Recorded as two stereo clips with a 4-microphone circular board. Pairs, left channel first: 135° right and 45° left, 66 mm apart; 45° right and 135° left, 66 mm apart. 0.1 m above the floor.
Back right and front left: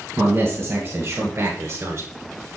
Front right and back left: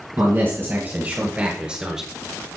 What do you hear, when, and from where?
0.2 s a man speaking: 95° left, 2 m; by 2.1 s 55° left, 1.4 m